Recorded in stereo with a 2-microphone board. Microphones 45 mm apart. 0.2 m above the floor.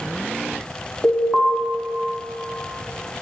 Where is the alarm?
Centre (ahead or behind), 1.5 m.